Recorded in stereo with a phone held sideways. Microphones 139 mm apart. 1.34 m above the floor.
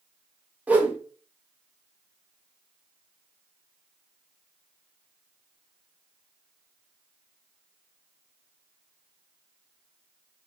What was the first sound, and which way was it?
A whoosh, 10° right (ahead or behind).